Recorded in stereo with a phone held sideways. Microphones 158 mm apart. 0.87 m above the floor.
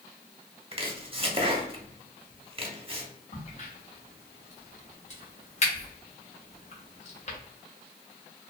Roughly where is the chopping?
Right.